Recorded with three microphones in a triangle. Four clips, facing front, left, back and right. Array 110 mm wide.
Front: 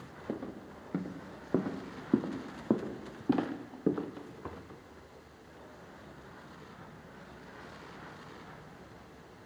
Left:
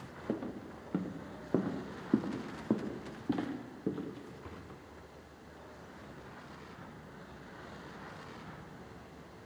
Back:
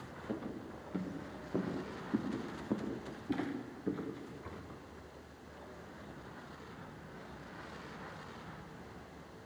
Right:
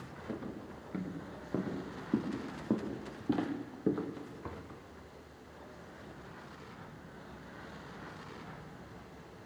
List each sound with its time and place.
0.3 s footsteps: 50° left, 3 m; by 4.6 s 25° right, 2.5 m